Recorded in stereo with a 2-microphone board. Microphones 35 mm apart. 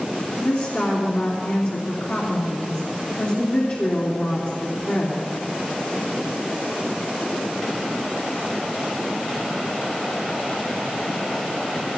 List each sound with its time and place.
0.4 s a woman speaking: 55° left (ahead or behind), 3 m